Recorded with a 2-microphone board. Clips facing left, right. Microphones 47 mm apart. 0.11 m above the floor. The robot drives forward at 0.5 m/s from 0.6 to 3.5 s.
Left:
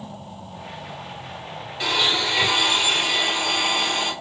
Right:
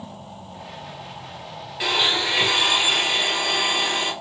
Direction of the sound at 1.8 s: 15° right (ahead or behind).